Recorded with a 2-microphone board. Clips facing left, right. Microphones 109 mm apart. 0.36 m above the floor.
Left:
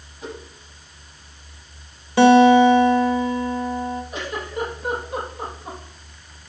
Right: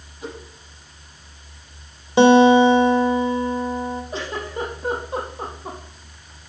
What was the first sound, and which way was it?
A whoosh, 5° right (ahead or behind).